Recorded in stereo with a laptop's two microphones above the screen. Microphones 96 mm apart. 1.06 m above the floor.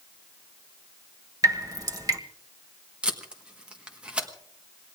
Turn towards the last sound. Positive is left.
turn(degrees=-10)  # may be behind; listen again after turning